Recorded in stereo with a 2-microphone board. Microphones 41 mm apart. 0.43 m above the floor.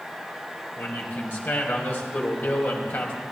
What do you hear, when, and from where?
0.8 s a man speaking: 60° left (ahead or behind), 3 m